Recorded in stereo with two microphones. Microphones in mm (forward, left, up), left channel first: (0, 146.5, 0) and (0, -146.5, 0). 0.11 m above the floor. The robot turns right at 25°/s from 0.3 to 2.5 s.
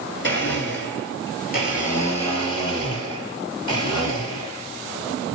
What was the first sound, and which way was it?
A blender, 100° left.